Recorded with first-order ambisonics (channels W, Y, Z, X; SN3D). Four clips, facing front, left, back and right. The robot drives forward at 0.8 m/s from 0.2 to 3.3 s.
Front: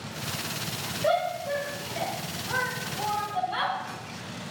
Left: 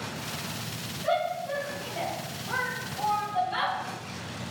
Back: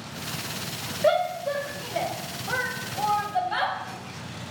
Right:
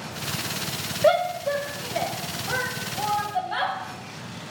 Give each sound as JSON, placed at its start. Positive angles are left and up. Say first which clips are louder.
{"t": 1.0, "sound": "a shout", "louder": "right 7 dB, back 3 dB", "azimuth_deg": -110, "distance_m": 1.5}